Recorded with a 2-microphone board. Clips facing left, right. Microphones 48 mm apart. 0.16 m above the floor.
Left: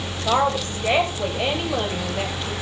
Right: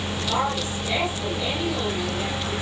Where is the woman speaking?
60° left (ahead or behind), 4.5 m.